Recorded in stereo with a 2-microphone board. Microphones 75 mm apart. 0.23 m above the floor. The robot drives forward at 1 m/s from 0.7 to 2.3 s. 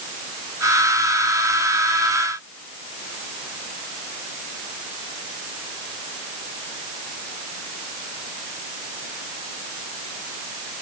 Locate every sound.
Only background noise.